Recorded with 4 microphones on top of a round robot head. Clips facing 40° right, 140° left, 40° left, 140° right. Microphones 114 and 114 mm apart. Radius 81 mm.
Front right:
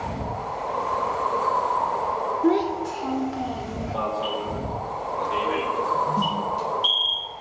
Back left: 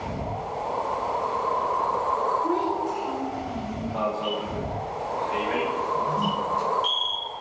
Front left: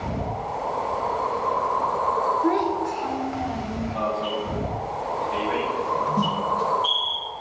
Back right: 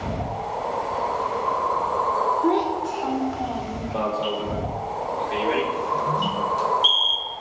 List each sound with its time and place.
2.4 s a child speaking: 60° right, 1.8 m
3.9 s an alarm: 115° right, 3.5 m
6.2 s a snare drum: 10° left, 7 m